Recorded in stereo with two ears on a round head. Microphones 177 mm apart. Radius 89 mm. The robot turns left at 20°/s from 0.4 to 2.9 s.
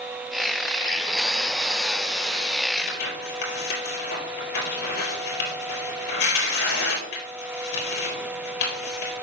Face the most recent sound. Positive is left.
turn(degrees=60)  # may be behind; listen again after turning